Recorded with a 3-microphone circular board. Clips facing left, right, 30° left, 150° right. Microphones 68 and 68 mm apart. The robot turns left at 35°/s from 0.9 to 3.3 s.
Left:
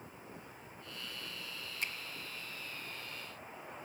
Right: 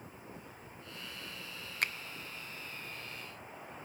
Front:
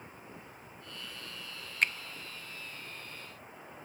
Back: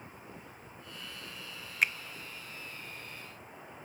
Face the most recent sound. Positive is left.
turn(degrees=-120)